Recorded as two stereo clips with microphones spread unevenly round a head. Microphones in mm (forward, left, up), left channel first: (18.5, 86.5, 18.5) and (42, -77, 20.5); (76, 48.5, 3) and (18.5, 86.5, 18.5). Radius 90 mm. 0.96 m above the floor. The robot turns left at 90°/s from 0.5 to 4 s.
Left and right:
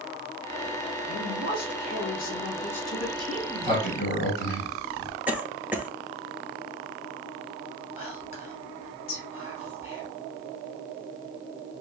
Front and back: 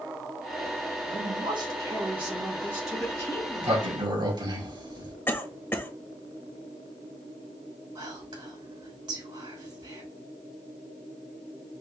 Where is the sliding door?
130° right, 2.5 m; by 5.2 s 135° left, 2.5 m.